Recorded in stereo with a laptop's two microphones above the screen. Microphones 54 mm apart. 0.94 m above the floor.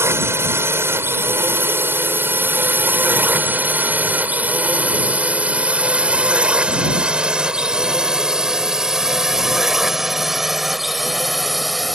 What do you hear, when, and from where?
0.0 s a drone: 50° right (ahead or behind); by 11.9 s centre (ahead or behind)